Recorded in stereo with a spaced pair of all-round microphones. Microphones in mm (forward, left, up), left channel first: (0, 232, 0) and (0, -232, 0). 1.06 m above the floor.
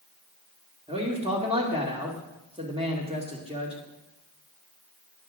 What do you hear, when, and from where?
0.9 s a man speaking: 10° right (ahead or behind), 2.5 m